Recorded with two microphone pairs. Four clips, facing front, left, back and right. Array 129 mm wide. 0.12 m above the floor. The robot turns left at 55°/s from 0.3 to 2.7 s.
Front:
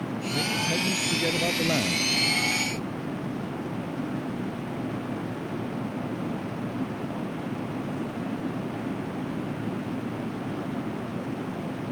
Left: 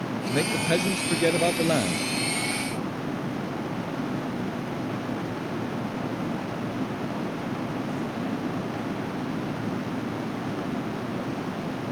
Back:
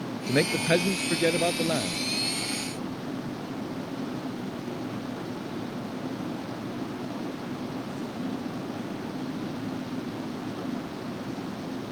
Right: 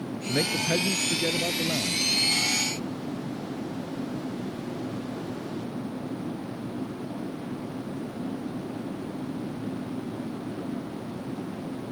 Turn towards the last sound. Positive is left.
turn(degrees=45)